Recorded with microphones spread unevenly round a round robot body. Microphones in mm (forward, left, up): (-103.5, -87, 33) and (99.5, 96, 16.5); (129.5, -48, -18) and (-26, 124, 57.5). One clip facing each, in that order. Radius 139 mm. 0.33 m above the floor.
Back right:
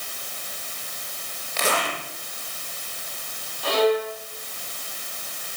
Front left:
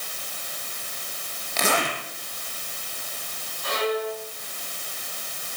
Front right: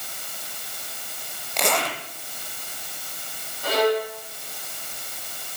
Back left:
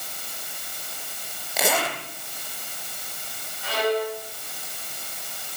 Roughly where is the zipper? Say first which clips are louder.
Front left 1 dB, even; ahead left.